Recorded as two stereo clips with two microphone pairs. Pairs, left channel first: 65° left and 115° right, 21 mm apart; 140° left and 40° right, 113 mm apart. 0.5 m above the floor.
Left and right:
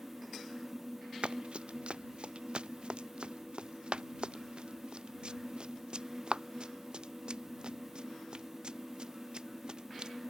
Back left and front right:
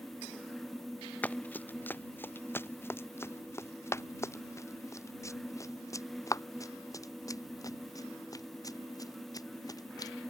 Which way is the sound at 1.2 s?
145° right.